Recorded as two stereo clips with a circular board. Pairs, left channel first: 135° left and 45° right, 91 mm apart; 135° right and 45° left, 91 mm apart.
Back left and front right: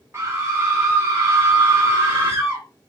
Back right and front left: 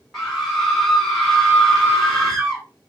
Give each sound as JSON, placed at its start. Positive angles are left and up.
{"t": 0.1, "sound": "a scream", "azimuth_deg": -45, "distance_m": 1.2}